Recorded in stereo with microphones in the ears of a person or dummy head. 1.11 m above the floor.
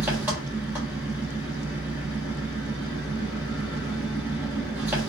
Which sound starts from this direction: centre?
An engine running, at 0.0 s.